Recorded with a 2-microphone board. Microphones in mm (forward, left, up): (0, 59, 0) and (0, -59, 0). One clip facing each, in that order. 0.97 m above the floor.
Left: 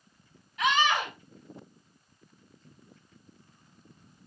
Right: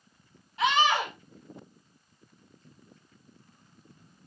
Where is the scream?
30° right (ahead or behind), 6 m.